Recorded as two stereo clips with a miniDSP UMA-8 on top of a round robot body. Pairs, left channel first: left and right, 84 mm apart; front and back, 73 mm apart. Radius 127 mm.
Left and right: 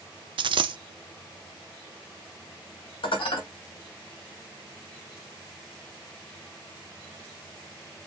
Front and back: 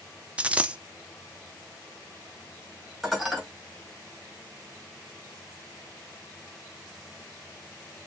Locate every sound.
0.4 s a dropped coin: 105° right, 0.6 m
3.0 s dishes clattering: 90° left, 2 m